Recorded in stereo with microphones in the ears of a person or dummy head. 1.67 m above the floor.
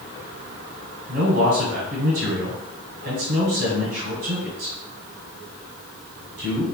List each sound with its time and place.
1.1 s a man speaking: 40° right (ahead or behind), 0.9 m